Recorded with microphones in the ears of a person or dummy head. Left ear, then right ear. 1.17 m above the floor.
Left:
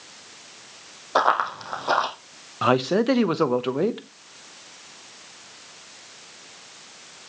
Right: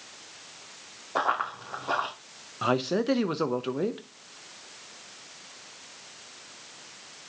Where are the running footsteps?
40° left (ahead or behind), 3 m.